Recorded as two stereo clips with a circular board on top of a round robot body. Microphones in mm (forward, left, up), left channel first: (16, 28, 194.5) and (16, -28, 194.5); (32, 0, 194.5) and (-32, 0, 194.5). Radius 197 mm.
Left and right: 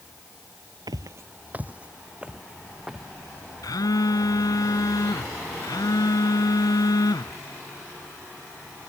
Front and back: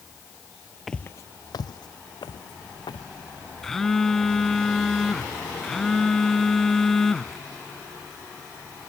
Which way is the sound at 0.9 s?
90° right.